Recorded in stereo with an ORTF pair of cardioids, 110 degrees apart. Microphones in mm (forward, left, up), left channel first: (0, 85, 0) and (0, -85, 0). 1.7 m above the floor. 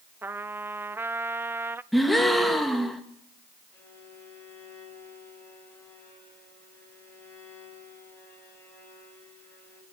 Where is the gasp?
Straight ahead, 2 m.